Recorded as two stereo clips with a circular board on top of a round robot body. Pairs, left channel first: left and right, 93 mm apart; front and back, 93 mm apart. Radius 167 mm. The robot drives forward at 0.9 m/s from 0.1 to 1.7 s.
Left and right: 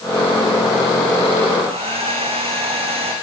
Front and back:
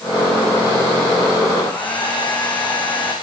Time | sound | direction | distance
1.6 | a hair dryer | 75° right | 9.5 m